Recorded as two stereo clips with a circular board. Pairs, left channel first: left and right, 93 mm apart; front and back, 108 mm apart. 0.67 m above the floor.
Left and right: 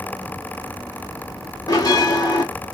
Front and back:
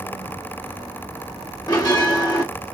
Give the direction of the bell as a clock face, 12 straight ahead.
11 o'clock.